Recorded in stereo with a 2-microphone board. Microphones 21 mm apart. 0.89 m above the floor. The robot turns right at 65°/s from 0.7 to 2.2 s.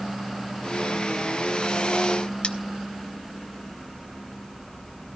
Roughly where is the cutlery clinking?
Left.